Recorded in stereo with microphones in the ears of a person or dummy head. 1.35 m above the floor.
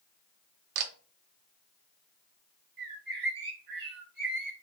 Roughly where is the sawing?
I don't hear sawing.